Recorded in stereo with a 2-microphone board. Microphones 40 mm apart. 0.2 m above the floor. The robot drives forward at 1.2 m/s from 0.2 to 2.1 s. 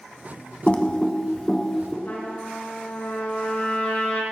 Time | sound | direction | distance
0.7 | typing on a keyboard | 30° left (ahead or behind) | 0.7 m
2.0 | a trumpet | 60° left (ahead or behind) | 2.5 m